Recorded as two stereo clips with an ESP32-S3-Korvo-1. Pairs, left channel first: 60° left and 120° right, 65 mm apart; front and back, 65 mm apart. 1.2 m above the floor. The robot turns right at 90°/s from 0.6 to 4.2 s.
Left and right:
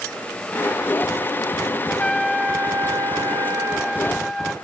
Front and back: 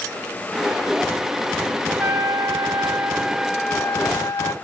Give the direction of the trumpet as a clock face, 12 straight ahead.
8 o'clock.